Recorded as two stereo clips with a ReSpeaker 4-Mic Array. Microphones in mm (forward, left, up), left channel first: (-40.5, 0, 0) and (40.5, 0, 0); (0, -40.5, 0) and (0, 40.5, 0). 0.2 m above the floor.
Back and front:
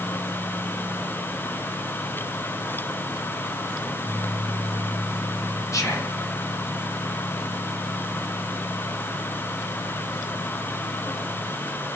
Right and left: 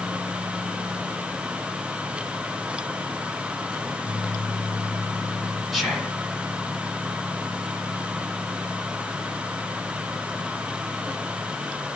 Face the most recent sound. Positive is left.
turn(degrees=180)